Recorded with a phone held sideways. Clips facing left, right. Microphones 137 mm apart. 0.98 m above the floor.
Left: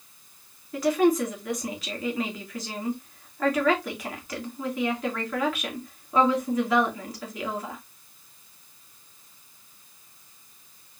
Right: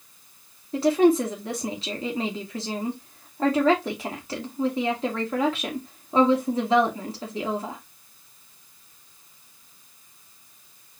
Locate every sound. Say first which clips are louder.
0.7 s a woman speaking: right 3 dB; 30° right (ahead or behind), 2 m